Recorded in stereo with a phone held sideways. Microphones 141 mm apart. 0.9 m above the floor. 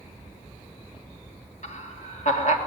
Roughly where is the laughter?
Left.